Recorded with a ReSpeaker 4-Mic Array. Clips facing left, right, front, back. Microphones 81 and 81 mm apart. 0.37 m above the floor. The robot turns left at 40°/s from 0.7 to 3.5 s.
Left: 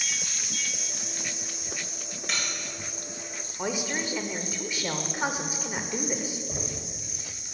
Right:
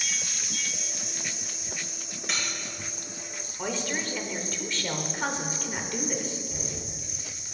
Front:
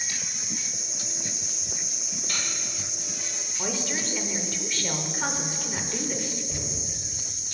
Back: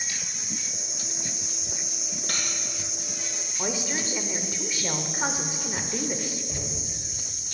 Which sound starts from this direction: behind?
Cutlery clinking, at 2.3 s.